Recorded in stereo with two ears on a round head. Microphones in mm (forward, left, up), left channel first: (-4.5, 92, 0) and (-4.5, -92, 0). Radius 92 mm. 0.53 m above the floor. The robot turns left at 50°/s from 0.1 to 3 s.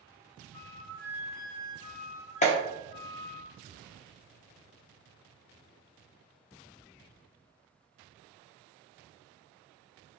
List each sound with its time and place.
0.5 s a flute: straight behind, 1.5 m; by 3.4 s 60° left, 1.5 m
2.4 s a clap: 35° left (ahead or behind), 0.7 m